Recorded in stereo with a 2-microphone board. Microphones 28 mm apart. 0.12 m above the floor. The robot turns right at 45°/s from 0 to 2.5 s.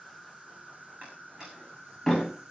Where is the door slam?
45° right (ahead or behind), 7.5 m; by 2.3 s 15° left (ahead or behind), 7.5 m.